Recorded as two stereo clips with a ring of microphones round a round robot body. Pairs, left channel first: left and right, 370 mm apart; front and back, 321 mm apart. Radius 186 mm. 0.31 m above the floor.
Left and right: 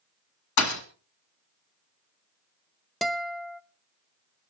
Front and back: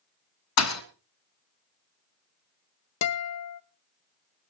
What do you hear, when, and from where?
0.6 s a thud: 40° left, 1.6 m
3.0 s a guitar: straight ahead, 0.7 m